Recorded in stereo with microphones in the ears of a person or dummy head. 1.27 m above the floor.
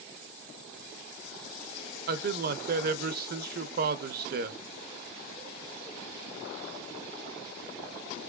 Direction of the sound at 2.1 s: 50° right (ahead or behind).